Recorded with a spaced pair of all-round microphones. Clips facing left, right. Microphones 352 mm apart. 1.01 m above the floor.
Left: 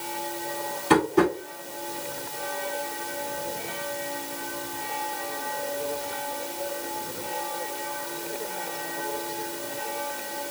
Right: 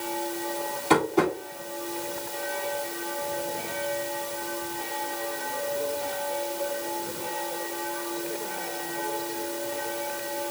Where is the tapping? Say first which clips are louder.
Left 2 dB; 25° left (ahead or behind), 2.5 m.